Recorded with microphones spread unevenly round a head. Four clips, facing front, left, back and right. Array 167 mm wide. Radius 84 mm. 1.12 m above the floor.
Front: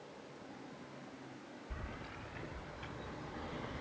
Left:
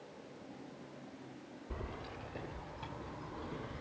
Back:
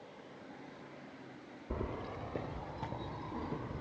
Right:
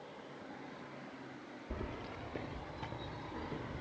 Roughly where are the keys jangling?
Behind.